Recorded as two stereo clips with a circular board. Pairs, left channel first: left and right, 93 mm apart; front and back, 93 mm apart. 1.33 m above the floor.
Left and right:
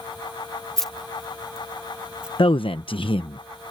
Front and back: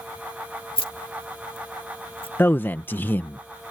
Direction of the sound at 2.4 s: 70° left.